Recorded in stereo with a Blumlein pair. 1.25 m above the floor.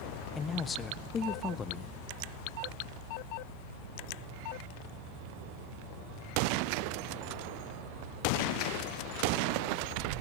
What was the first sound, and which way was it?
A man speaking, 20° left.